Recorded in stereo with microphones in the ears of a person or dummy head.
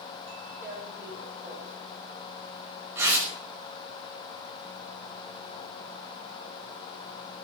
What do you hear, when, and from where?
0.6 s tearing paper: 10° right (ahead or behind), 5 m